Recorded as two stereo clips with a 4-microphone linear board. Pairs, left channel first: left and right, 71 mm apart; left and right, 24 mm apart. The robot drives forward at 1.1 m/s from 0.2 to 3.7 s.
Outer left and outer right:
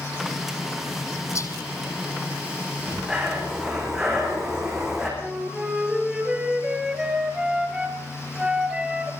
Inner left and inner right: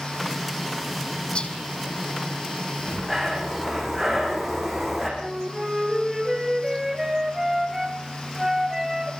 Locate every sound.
1.4 s whispering: 45° left (ahead or behind), 5.5 m
2.8 s breathing: 5° right (ahead or behind), 8.5 m
5.2 s a flute: 15° right (ahead or behind), 3.5 m